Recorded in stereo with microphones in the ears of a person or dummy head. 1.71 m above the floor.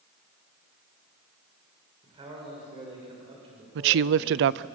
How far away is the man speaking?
About 6.5 m.